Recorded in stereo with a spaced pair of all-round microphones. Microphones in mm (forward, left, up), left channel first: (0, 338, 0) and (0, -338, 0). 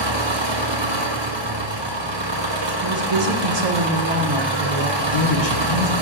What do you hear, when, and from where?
0.0 s an engine running: 40° right (ahead or behind), 1.0 m
2.8 s a woman speaking: 65° right (ahead or behind), 0.9 m
5.0 s a man speaking: 50° left (ahead or behind), 1.3 m